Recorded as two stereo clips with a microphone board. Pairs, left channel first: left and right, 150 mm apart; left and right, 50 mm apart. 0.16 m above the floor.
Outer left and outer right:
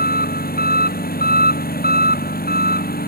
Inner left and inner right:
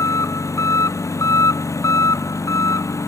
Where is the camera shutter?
No camera shutter in this recording.